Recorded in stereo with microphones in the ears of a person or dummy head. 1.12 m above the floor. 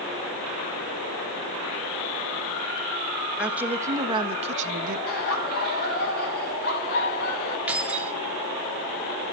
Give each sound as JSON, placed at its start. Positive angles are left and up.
{"t": 3.4, "sound": "a woman speaking", "side_deg": -5, "distance_m": 1.7}
{"t": 5.1, "sound": "laughter", "side_deg": 50, "distance_m": 7.5}
{"t": 7.7, "sound": "keys jangling", "side_deg": -10, "distance_m": 1.9}